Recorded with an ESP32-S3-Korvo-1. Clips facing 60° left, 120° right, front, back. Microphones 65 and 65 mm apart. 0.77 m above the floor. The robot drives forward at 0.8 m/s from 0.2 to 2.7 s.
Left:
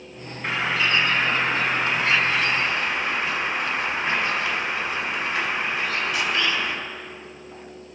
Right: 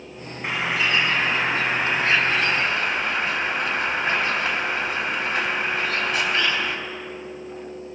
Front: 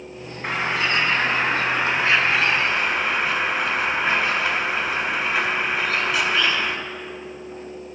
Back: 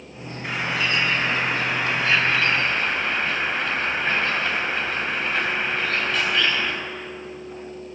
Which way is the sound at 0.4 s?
45° right.